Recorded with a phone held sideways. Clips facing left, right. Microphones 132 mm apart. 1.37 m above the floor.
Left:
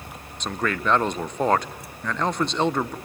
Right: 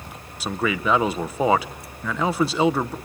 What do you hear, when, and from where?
0.4 s a man speaking: 5° right (ahead or behind), 0.7 m